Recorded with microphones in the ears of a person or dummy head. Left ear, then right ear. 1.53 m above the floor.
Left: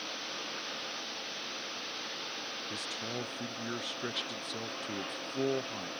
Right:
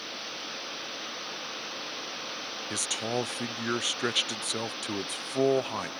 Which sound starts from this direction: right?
A man speaking, at 2.7 s.